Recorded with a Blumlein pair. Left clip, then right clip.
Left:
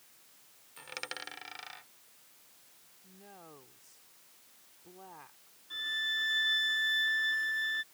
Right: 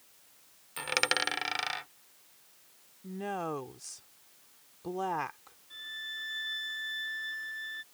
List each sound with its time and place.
0.8 s a dropped coin: 30° right
3.0 s a woman speaking: 50° right
5.7 s a violin: 70° left